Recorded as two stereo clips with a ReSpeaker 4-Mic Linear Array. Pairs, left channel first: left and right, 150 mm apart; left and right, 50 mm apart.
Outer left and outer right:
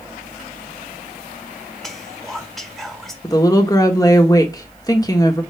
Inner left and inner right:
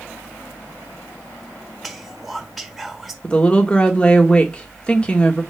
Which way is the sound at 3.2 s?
20° left (ahead or behind).